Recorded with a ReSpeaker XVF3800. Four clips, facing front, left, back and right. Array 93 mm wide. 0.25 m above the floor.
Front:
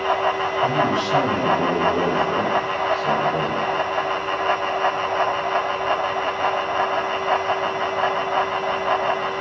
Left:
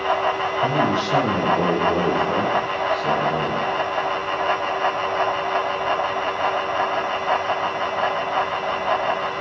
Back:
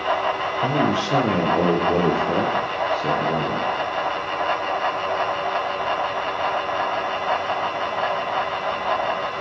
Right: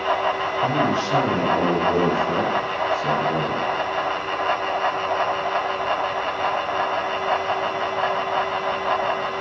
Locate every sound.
0.6 s a man speaking: straight behind, 6 m; by 3.7 s 160° right, 7 m